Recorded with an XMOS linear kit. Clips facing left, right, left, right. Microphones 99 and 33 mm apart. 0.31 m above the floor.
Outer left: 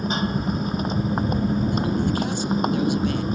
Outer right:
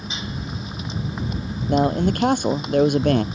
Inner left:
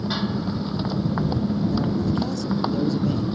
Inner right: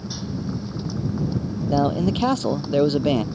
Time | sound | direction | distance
0.0 | a motorcycle | 45° left (ahead or behind) | ?
1.7 | a man speaking | 60° right (ahead or behind) | ?